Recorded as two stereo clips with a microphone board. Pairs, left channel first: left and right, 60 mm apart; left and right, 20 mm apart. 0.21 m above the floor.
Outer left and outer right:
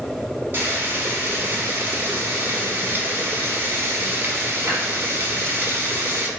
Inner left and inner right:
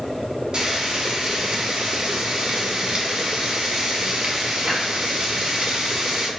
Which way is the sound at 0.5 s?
40° right (ahead or behind).